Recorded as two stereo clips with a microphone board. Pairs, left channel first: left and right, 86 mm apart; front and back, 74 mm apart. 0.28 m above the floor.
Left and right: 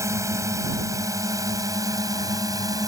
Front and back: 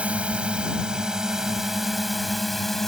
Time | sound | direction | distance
0.0 | a drone | 115° right | ?